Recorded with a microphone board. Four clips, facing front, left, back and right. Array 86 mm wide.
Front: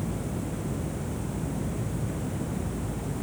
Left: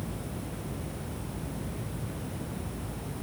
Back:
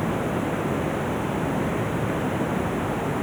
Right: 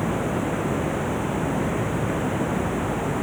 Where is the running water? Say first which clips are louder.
Right 14 dB, back 8 dB; 130° right.